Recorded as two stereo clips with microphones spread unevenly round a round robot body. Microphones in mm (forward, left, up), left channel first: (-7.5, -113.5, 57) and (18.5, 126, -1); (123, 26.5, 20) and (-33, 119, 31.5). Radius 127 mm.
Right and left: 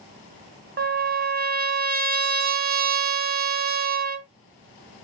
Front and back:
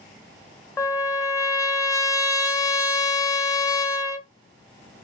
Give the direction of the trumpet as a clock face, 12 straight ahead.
11 o'clock.